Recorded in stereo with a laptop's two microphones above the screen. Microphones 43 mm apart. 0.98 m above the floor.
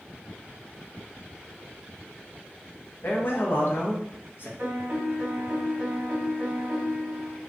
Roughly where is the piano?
Right.